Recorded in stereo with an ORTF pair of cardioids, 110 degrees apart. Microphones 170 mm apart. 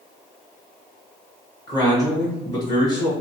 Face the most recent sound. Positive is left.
turn(degrees=25)